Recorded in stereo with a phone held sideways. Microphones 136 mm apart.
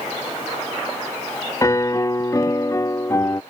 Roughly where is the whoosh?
No whoosh in this recording.